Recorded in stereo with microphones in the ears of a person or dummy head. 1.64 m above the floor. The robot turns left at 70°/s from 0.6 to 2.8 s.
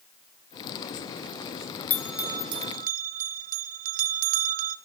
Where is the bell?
15° left (ahead or behind), 0.5 m; by 4.8 s 50° right (ahead or behind), 0.5 m.